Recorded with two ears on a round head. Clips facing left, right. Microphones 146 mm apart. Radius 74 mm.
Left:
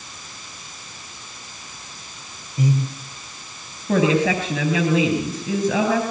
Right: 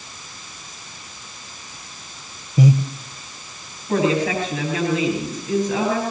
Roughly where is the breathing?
Right.